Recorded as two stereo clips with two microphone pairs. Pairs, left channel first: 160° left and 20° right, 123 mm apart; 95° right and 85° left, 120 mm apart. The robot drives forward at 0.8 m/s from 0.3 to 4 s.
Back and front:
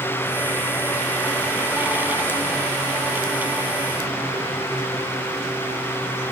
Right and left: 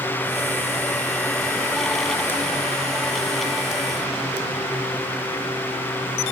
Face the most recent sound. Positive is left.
No sound to turn to.